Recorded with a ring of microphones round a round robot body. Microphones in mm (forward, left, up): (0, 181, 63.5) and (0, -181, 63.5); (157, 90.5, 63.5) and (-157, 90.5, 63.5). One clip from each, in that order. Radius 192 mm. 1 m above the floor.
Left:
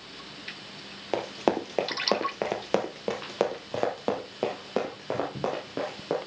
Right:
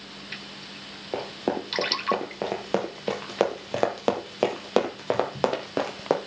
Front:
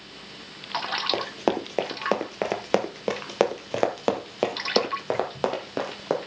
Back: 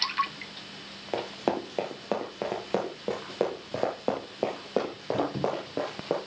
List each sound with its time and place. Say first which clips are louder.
1.1 s running footsteps: left 2 dB, front 4 dB; 65° left, 1.4 m; by 6.2 s 40° right, 2.5 m